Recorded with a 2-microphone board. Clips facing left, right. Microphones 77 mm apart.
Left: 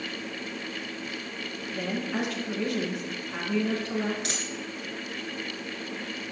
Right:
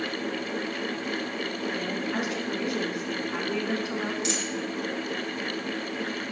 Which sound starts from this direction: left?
A dropped coin, at 4.2 s.